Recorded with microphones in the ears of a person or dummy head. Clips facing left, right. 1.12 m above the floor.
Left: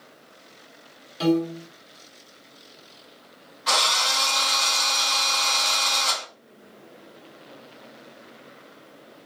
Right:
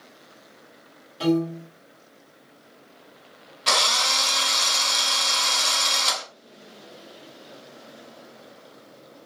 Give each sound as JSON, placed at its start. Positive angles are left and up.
{"t": 1.2, "sound": "a piano", "side_deg": 25, "distance_m": 1.7}
{"t": 3.7, "sound": "a drill", "side_deg": -45, "distance_m": 0.9}